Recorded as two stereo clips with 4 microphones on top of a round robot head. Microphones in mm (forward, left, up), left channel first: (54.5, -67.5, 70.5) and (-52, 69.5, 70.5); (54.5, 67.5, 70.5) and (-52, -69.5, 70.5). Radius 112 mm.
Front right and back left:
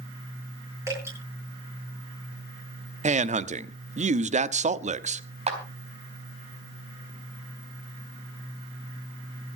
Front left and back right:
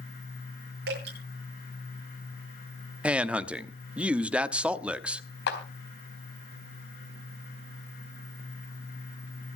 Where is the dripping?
155° right, 9 m.